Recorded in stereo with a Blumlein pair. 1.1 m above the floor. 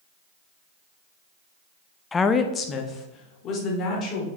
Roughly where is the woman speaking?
Ahead.